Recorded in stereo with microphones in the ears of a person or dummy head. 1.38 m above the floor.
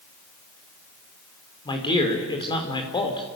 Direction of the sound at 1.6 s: 25° left (ahead or behind).